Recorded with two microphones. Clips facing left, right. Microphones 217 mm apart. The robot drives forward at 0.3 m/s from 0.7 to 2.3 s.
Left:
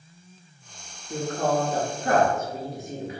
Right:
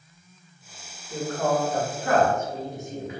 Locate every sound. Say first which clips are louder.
1.1 s a woman speaking: even; 45° left (ahead or behind), 0.9 m; by 3.2 s 35° left (ahead or behind), 1.1 m